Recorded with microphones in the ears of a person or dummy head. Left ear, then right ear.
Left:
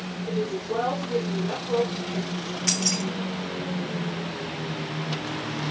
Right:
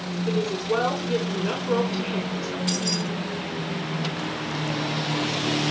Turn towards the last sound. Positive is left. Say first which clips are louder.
# left 3 dB
turn(degrees=30)  # may be behind; listen again after turning